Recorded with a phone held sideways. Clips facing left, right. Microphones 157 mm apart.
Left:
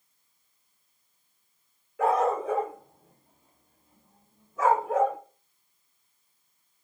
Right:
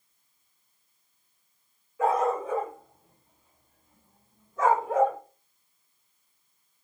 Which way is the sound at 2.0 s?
70° left (ahead or behind).